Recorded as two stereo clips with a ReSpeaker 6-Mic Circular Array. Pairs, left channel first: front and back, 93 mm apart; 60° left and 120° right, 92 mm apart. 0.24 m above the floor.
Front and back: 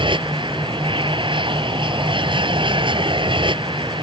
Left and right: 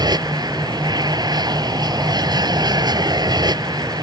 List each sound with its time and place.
0.0 s an aircraft: 160° right